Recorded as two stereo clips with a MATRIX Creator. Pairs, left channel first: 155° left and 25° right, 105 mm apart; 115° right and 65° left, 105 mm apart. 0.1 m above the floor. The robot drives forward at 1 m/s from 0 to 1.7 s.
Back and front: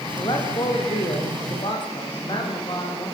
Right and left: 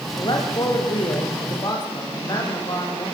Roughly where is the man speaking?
Behind right.